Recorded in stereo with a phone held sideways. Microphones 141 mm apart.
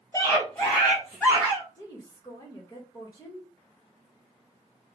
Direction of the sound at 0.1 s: 25° left (ahead or behind).